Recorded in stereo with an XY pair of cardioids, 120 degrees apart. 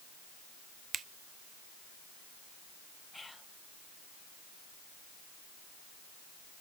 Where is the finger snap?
50° right, 0.6 m.